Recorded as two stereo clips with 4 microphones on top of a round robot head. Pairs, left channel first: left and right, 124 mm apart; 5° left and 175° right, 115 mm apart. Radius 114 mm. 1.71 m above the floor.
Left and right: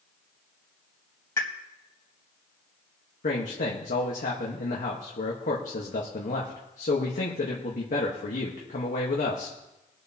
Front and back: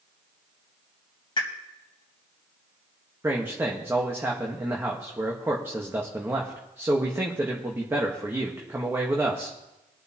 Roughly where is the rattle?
I don't hear a rattle.